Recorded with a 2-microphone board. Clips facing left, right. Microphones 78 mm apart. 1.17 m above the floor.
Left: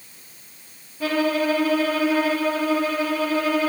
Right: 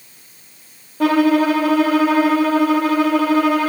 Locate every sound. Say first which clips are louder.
1.0 s a violin: right 8 dB; 70° right (ahead or behind), 1.1 m